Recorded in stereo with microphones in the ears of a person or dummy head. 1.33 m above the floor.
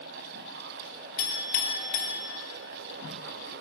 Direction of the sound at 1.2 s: 45° left (ahead or behind).